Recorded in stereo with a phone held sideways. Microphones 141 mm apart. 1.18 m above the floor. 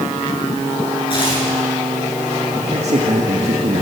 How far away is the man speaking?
About 1.9 m.